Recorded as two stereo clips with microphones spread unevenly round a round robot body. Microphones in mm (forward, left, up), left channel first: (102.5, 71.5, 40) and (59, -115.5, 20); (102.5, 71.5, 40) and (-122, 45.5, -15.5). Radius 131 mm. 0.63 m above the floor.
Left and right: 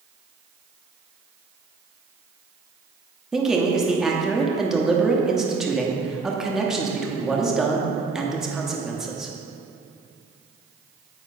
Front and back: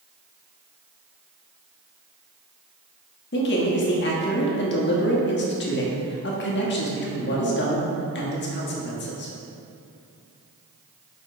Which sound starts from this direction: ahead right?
A man speaking, at 3.3 s.